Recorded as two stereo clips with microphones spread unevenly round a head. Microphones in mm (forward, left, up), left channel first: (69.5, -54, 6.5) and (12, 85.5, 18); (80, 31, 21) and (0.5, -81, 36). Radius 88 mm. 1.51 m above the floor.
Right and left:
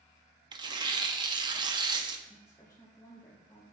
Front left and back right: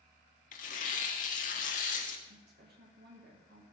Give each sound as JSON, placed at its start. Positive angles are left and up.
{"t": 0.5, "sound": "tearing paper", "azimuth_deg": 70, "distance_m": 1.1}
{"t": 2.3, "sound": "a woman speaking", "azimuth_deg": -140, "distance_m": 2.5}